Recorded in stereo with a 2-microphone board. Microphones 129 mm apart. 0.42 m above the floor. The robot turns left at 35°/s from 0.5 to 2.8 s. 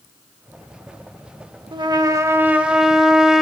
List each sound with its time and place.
1.7 s a trumpet: 140° right, 0.7 m; by 3.4 s 175° right, 0.7 m